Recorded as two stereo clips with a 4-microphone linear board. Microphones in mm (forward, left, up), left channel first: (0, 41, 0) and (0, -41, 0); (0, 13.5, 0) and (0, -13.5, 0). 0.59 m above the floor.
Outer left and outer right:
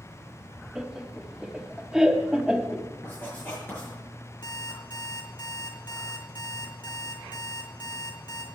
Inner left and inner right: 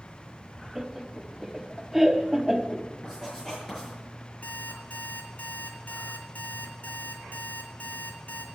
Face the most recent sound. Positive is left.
turn(degrees=85)